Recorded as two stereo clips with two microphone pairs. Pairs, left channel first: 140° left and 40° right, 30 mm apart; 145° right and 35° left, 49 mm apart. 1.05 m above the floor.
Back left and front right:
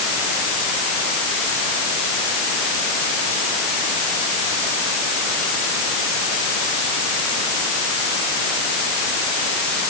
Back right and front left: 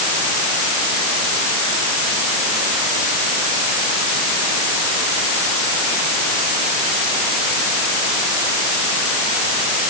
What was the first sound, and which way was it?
Only background noise.